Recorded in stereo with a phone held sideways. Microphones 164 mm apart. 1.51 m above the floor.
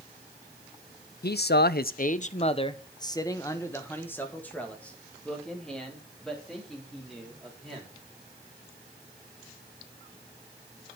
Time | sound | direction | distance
1.2 | a man speaking | 70° left (ahead or behind) | 0.5 m